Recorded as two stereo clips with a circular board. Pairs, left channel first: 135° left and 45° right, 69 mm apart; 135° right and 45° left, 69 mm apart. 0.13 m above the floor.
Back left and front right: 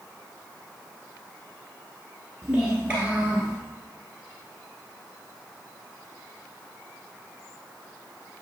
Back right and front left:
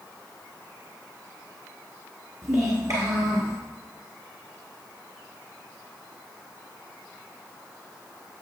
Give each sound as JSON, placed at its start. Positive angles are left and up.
{"t": 2.4, "sound": "a child speaking", "azimuth_deg": 25, "distance_m": 1.1}